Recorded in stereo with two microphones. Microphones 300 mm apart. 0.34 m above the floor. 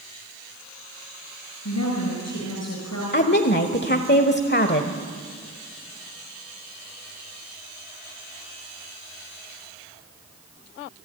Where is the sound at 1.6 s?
65° left (ahead or behind), 4.5 m.